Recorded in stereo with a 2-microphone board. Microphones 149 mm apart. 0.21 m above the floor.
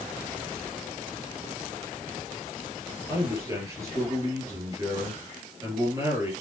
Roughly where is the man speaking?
Right.